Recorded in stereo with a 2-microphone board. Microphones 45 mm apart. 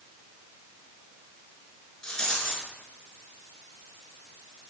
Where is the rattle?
20° left (ahead or behind), 1.9 m.